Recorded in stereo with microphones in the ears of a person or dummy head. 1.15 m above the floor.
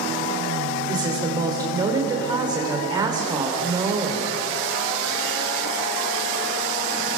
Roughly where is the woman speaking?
Centre.